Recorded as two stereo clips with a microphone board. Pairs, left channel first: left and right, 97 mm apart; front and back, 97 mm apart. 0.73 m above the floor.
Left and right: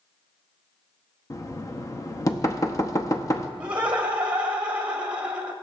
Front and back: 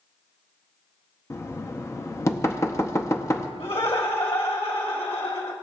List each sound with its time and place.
1.3 s knocking: 50° left, 0.7 m
3.6 s laughter: 15° right, 2.5 m